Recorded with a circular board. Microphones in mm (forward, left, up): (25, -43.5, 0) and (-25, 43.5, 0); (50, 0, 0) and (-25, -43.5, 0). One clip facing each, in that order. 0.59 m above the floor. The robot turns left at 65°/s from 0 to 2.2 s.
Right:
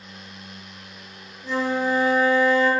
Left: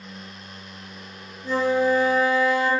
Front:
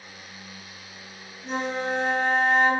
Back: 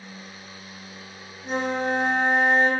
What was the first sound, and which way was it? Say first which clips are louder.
A flute: left 3 dB, back 3 dB; 150° right.